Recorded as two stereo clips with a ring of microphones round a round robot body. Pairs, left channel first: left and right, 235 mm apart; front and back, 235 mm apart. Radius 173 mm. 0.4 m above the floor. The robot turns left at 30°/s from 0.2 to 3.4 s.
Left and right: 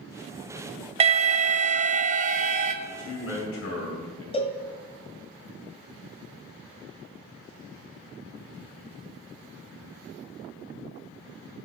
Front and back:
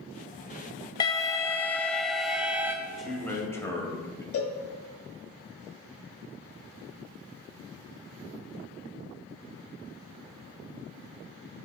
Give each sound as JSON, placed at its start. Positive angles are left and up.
{"t": 1.0, "sound": "an alarm", "azimuth_deg": -55, "distance_m": 0.5}
{"t": 2.9, "sound": "a man speaking", "azimuth_deg": 95, "distance_m": 2.5}
{"t": 4.3, "sound": "a cowbell", "azimuth_deg": 25, "distance_m": 1.2}